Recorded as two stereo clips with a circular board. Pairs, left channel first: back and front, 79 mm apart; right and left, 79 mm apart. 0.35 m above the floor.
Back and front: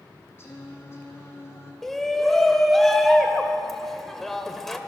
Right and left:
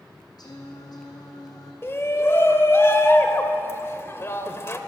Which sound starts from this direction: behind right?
Singing, at 0.4 s.